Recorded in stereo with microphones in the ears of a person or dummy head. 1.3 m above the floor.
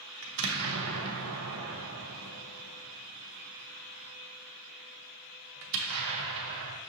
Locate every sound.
0.2 s an explosion: 75° right (ahead or behind), 0.6 m